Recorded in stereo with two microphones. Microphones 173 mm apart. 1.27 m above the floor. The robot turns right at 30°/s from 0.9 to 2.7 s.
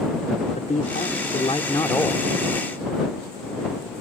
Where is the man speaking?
130° left; by 2.3 s 170° left.